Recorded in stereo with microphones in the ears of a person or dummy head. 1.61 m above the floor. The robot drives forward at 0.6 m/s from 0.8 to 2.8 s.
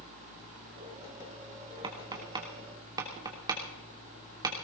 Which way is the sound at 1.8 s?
30° right (ahead or behind).